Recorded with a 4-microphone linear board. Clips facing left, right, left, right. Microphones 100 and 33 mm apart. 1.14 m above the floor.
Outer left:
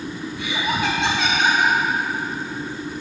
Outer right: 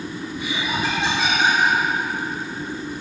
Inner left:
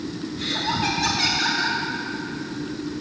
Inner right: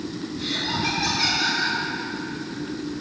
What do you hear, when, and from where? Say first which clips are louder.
0.4 s laughter: outer left 2 dB, inner left 2 dB; 75° left (ahead or behind), 4.5 m